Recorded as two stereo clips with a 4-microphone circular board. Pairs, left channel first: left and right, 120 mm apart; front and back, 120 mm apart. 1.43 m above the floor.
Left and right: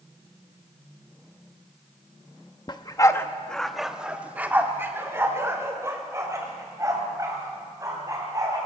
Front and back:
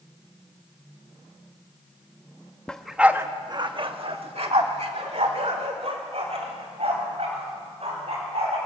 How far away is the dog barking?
About 0.9 m.